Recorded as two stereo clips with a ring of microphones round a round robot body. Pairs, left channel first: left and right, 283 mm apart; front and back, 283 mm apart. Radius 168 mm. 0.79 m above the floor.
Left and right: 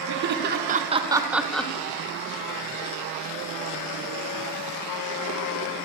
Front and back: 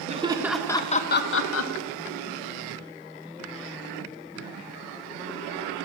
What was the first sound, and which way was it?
Laughter, 120° right.